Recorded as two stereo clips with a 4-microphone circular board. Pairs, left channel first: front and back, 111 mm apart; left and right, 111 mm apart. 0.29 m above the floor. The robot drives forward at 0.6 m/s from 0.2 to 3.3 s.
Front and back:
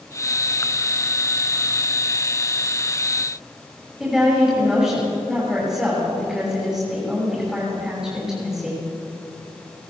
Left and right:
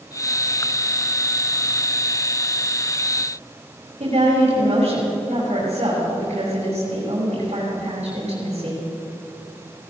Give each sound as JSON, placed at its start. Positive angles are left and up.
{"t": 4.0, "sound": "a woman speaking", "azimuth_deg": -95, "distance_m": 5.5}